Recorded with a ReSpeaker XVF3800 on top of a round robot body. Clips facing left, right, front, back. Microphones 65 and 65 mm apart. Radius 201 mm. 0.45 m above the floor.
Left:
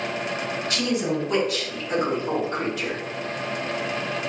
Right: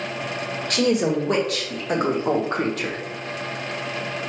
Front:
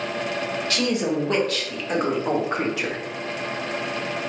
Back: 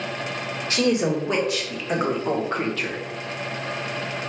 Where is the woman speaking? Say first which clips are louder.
Right 6 dB, back 4 dB; 115° right, 2 m; by 3.0 s 70° right, 1.4 m.